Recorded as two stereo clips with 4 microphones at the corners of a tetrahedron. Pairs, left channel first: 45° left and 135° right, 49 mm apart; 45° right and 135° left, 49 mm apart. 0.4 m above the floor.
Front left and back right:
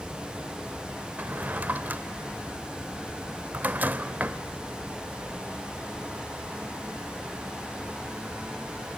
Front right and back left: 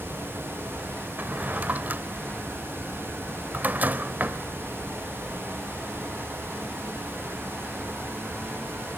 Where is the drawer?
Straight behind, 0.7 m.